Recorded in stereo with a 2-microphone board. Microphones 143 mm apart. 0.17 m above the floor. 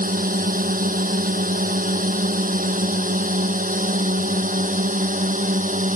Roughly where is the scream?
No scream in this recording.